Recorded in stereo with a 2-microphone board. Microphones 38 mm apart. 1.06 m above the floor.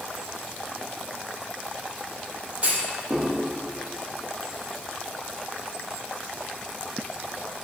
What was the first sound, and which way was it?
A clunk, 45° right (ahead or behind).